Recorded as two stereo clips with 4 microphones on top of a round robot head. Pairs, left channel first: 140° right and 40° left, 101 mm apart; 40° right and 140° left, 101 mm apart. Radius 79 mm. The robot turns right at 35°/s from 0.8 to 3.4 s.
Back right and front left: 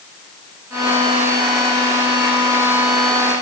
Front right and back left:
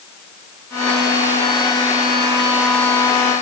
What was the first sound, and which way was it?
Only background noise.